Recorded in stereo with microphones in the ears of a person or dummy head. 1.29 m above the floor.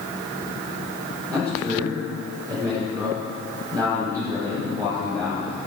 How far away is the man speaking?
About 3.5 m.